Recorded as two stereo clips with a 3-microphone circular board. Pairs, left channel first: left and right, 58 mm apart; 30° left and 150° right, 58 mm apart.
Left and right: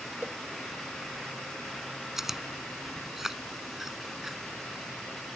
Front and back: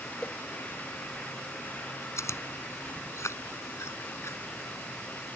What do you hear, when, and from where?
0.2 s a whoosh: 35° right
2.2 s chewing: 5° right